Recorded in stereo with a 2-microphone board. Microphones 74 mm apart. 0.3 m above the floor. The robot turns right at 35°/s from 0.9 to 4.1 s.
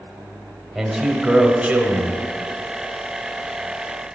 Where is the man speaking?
Straight behind, 1.0 m; by 2.2 s 135° right, 1.0 m.